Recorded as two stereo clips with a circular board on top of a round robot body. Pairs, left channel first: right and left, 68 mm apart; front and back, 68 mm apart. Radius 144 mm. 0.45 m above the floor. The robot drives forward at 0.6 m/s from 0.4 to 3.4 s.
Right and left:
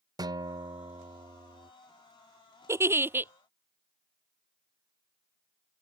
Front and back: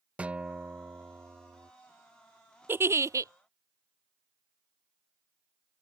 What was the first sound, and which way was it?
A guitar, 110° left.